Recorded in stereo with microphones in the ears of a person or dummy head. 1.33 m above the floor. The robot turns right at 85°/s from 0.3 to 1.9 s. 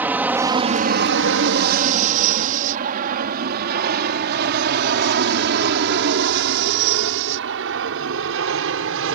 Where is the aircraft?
10° right (ahead or behind); by 9.2 s 70° right (ahead or behind).